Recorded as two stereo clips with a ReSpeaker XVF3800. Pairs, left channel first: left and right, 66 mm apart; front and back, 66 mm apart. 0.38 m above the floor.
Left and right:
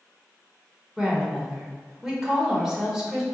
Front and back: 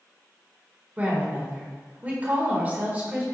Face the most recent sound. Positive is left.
turn(degrees=-160)